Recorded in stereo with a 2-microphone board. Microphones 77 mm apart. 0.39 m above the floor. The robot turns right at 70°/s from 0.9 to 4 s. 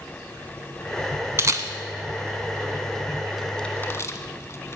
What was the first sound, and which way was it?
A camera shutter, 35° right (ahead or behind).